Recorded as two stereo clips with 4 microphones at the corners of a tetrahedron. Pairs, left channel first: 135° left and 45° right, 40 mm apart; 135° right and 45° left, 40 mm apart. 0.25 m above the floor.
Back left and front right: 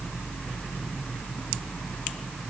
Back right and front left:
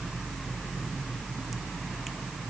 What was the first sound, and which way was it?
Only background noise.